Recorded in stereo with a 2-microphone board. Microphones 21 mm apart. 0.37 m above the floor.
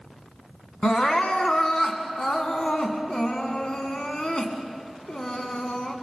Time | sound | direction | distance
0.8 | crying | 45° left (ahead or behind) | 1.9 m